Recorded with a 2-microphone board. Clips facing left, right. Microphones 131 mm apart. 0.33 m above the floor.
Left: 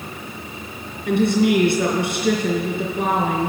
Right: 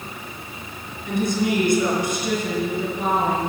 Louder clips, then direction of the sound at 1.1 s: Left 5 dB; 55° left (ahead or behind).